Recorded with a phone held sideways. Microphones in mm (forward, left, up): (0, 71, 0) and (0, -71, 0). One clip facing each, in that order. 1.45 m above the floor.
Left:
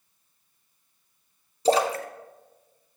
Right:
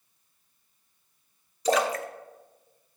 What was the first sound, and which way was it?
A splash, 30° left (ahead or behind).